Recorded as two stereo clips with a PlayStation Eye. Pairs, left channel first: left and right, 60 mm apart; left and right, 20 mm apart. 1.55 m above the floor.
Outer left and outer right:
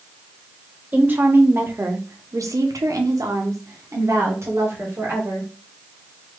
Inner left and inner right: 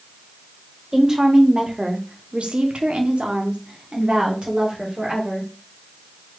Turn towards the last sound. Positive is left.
turn(degrees=-45)  # may be behind; listen again after turning